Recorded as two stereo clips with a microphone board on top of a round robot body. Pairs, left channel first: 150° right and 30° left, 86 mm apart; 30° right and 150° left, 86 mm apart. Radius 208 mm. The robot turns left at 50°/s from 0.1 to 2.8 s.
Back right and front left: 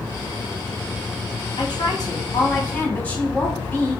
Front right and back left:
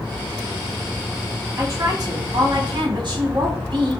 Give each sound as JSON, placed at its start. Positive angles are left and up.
{"t": 1.6, "sound": "a woman speaking", "azimuth_deg": -160, "distance_m": 1.9}